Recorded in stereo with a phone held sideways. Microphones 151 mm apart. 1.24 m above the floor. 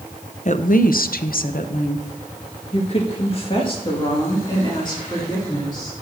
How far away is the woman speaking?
About 0.7 m.